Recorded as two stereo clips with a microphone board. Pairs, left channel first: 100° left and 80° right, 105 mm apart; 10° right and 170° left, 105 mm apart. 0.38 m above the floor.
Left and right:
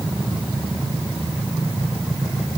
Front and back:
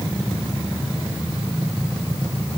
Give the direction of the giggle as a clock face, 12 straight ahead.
I don't hear a giggle.